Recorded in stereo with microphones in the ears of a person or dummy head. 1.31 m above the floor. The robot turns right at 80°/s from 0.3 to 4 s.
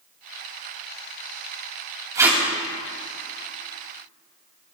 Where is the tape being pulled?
25° right (ahead or behind), 2.5 m; by 2.4 s 5° right (ahead or behind), 2.5 m.